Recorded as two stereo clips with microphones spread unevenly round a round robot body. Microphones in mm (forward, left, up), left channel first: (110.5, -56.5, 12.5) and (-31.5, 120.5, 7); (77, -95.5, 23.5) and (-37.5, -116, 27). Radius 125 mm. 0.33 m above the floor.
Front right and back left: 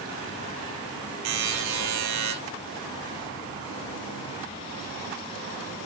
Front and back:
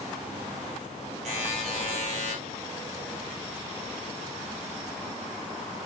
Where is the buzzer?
135° left, 3 m.